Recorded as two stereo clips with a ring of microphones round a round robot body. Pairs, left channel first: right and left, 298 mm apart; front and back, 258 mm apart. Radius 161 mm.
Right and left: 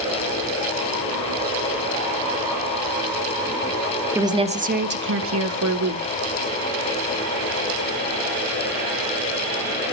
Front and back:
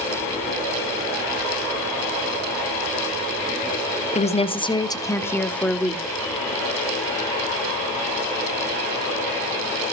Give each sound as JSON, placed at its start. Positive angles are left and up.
{"t": 4.1, "sound": "a woman speaking", "azimuth_deg": 15, "distance_m": 1.0}